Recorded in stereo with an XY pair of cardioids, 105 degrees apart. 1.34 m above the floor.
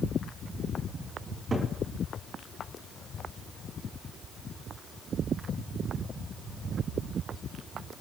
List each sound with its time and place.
1.3 s a cupboard door: 35° right, 4.5 m